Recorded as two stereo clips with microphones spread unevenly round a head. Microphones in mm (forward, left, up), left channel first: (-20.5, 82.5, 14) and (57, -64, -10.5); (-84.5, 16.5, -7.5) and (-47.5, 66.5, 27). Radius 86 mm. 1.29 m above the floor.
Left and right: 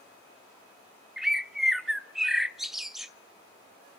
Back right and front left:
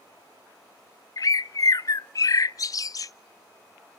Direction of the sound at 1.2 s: 150° right.